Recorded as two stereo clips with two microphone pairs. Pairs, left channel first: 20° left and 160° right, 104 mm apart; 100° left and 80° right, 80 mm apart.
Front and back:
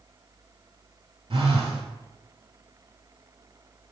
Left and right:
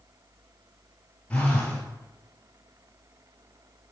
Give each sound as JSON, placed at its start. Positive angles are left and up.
{"t": 1.3, "sound": "a phone buzzing", "azimuth_deg": 175, "distance_m": 0.7}